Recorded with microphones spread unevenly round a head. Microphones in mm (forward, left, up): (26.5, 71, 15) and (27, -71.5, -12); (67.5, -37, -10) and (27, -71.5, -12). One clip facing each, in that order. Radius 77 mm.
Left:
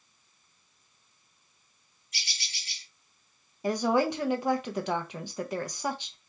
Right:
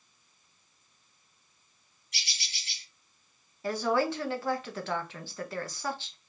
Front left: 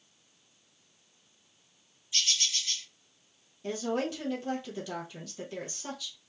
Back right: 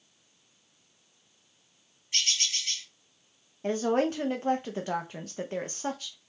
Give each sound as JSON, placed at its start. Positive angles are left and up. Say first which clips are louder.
{"t": 2.1, "sound": "a bird", "louder": "even, back right 1 dB", "azimuth_deg": -110, "distance_m": 2.5}
{"t": 3.6, "sound": "a woman speaking", "louder": "left 2 dB, back right 5 dB", "azimuth_deg": 170, "distance_m": 0.6}